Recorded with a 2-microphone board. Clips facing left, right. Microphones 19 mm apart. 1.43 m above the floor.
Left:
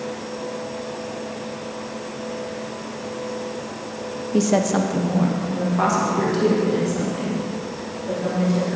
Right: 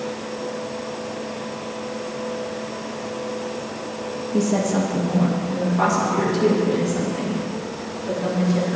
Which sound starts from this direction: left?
A woman speaking, at 4.3 s.